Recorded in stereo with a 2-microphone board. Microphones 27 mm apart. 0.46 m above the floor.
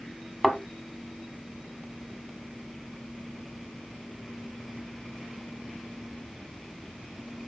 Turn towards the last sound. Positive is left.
turn(degrees=-5)  # may be behind; listen again after turning